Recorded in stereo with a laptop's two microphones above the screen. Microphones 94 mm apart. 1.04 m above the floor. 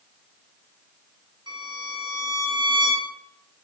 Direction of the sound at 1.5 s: 55° right (ahead or behind).